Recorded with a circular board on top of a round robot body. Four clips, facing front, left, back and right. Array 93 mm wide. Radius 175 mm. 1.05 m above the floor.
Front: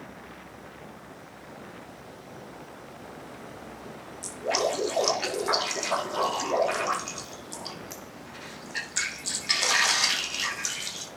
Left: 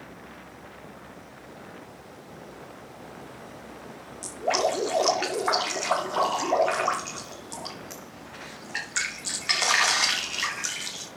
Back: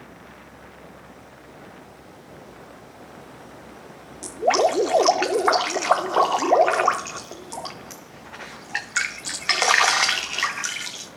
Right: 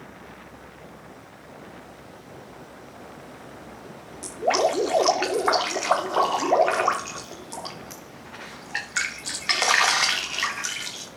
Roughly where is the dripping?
Behind.